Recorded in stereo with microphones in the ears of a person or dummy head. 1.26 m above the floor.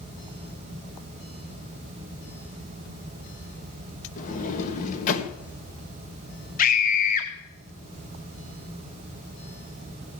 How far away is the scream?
About 0.9 m.